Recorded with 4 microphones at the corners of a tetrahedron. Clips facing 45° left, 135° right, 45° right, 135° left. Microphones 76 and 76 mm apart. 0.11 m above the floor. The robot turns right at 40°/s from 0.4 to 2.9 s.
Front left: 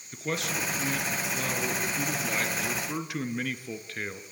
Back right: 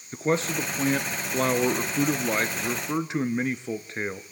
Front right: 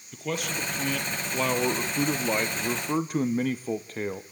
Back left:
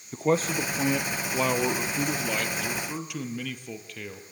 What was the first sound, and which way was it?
A man speaking, straight behind.